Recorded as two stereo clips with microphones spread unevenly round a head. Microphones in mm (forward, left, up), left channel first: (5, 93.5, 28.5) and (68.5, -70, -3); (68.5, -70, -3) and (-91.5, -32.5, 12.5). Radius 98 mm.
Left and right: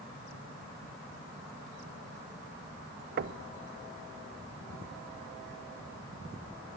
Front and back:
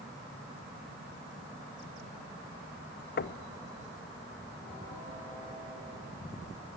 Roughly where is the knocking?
Ahead right.